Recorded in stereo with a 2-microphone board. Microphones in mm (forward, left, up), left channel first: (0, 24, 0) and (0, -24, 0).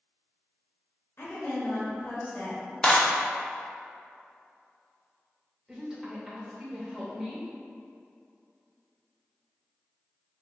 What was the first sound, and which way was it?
A woman speaking, 55° left (ahead or behind).